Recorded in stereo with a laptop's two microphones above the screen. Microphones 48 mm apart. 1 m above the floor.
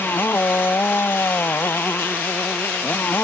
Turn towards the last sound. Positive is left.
turn(degrees=50)  # may be behind; listen again after turning